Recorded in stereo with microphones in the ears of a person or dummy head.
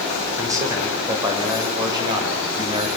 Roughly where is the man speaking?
Centre.